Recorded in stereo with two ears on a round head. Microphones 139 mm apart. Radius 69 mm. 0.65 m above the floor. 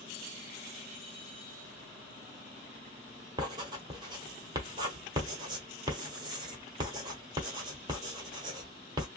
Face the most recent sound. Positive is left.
turn(degrees=-30)  # may be behind; listen again after turning